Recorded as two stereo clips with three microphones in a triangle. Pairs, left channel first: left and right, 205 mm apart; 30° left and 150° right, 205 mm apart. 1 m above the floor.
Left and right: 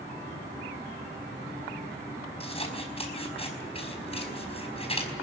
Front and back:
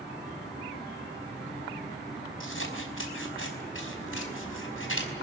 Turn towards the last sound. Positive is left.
turn(degrees=30)